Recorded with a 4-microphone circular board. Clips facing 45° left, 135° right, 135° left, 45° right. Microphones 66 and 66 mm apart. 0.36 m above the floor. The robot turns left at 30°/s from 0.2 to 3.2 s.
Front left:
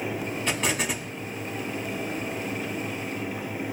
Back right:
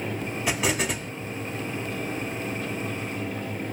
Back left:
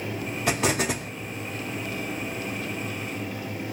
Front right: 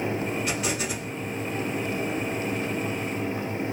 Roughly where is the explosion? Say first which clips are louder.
Back right 2 dB, back left 4 dB; behind left.